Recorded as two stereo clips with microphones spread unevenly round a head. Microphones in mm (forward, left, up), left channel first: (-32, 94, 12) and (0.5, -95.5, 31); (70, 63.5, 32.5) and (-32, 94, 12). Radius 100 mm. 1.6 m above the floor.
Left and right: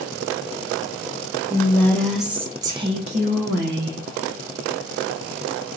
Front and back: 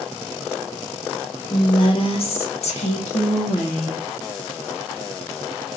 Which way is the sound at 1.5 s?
25° left.